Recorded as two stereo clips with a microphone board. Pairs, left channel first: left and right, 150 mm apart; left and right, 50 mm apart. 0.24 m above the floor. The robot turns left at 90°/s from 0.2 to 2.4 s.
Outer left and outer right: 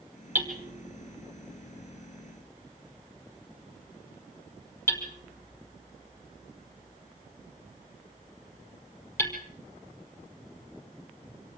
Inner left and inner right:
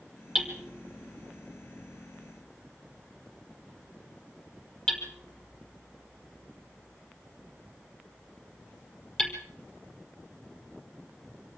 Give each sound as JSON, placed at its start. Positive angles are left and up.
{"t": 0.3, "sound": "hammering", "side_deg": -10, "distance_m": 5.0}